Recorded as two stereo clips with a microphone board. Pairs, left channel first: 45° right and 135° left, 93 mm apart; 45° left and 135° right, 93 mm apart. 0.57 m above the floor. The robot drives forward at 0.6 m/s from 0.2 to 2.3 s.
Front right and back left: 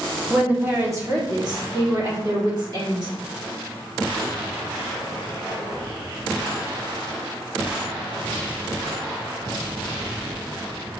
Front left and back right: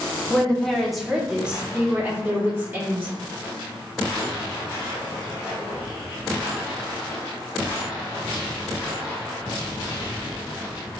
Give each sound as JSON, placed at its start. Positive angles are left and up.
{"t": 0.3, "sound": "a woman speaking", "azimuth_deg": 85, "distance_m": 0.9}